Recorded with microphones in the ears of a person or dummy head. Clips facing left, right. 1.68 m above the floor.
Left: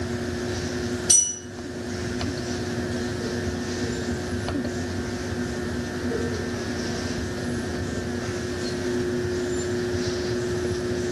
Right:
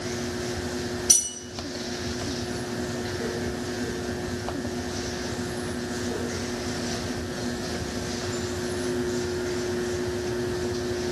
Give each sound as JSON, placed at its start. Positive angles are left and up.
{"t": 1.1, "sound": "a bell", "side_deg": 20, "distance_m": 0.7}